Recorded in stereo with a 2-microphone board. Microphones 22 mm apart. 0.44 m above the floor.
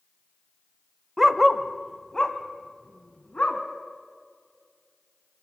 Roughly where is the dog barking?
Centre.